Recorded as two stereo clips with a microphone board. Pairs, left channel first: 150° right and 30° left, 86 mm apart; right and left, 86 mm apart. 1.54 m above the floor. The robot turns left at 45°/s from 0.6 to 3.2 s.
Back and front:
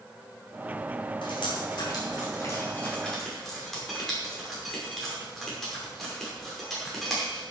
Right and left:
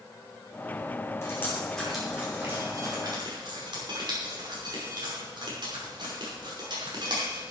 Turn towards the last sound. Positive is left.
turn(degrees=120)